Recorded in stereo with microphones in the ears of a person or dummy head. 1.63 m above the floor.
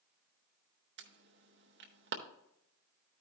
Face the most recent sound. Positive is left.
turn(degrees=-50)  # may be behind; listen again after turning